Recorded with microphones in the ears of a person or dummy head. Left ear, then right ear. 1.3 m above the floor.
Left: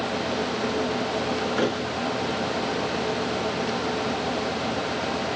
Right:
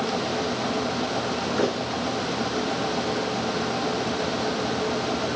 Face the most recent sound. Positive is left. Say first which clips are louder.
# right 2 dB
turn(degrees=30)  # may be behind; listen again after turning